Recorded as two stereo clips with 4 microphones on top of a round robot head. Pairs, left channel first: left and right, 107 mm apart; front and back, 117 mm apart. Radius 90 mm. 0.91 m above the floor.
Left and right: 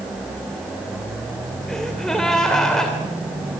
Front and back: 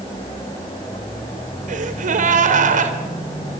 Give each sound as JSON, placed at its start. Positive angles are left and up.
{"t": 1.7, "sound": "a gasp", "azimuth_deg": 175, "distance_m": 3.0}